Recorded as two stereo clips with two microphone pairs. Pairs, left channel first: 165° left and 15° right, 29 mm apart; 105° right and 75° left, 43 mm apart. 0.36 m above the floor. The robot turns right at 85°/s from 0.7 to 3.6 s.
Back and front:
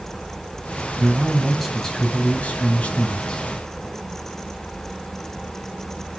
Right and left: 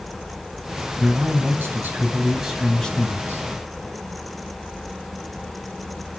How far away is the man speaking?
About 2.5 m.